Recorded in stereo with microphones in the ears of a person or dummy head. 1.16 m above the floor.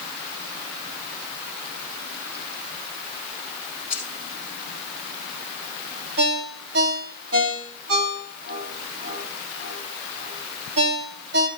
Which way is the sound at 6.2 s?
80° right.